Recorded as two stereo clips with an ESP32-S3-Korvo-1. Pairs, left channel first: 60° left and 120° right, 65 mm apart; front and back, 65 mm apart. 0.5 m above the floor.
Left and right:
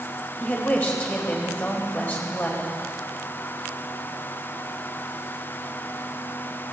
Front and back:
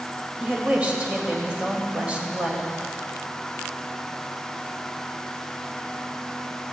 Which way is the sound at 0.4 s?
115° left.